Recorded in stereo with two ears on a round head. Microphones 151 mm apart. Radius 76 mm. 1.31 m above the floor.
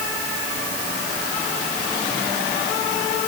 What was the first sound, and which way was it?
Only background noise.